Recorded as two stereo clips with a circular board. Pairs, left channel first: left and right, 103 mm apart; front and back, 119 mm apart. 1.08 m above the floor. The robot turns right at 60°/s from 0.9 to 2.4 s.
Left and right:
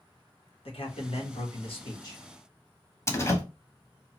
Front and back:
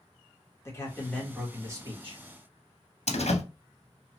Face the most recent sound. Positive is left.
turn(degrees=25)